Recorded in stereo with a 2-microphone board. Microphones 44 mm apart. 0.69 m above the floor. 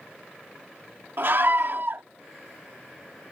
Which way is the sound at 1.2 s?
55° right (ahead or behind).